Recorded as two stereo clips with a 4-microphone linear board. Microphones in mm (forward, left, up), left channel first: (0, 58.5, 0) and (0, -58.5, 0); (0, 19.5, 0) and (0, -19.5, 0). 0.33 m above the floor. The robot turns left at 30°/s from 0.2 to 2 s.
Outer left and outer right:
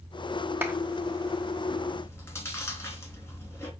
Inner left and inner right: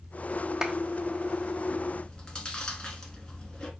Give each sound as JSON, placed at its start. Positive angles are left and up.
{"t": 0.6, "sound": "a clap", "side_deg": -20, "distance_m": 0.8}
{"t": 2.0, "sound": "chewing", "side_deg": 25, "distance_m": 1.0}